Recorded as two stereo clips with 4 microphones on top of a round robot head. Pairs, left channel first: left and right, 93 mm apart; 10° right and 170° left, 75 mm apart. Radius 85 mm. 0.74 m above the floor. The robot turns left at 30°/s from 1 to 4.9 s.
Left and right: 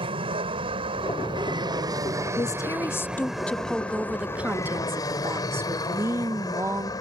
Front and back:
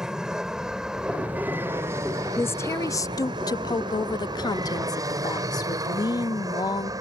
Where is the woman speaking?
45° left; by 6.9 s 30° right.